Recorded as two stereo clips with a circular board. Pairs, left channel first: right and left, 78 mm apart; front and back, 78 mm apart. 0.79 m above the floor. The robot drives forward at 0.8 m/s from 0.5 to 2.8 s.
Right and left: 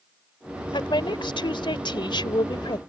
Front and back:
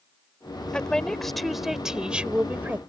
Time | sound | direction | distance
0.7 | a woman speaking | 80° right | ?